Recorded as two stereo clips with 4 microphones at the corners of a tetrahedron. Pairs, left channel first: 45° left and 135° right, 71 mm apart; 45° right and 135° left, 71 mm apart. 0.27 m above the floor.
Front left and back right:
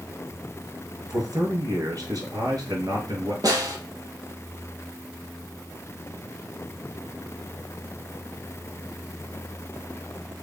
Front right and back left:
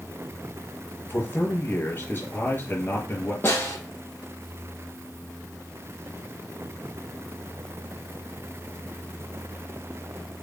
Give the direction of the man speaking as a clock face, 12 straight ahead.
4 o'clock.